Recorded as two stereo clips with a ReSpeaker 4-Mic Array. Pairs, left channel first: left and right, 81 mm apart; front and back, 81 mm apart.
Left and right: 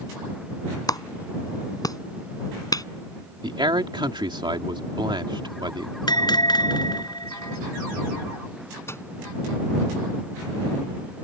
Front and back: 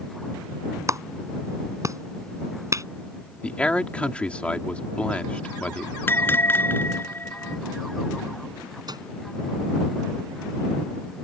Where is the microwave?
150° left.